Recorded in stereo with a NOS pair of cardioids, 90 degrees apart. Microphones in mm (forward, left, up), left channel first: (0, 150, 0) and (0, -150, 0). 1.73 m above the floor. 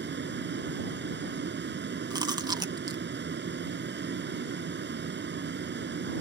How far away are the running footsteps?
No running footsteps in this recording.